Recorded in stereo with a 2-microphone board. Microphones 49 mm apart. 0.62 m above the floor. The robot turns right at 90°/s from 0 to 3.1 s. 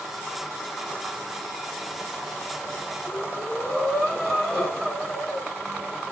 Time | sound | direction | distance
3.0 | breathing | 5° right (ahead or behind) | 4 m